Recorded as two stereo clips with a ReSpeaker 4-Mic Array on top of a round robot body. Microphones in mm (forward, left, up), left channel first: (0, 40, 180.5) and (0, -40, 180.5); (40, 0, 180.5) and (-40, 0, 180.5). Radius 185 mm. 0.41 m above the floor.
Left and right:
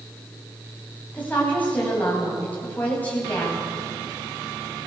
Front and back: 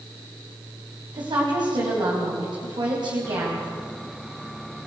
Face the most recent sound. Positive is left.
turn(degrees=160)